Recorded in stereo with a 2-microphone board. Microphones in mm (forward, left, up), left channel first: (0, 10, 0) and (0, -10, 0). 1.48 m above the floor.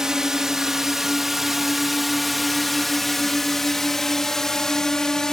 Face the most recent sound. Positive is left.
turn(degrees=25)  # may be behind; listen again after turning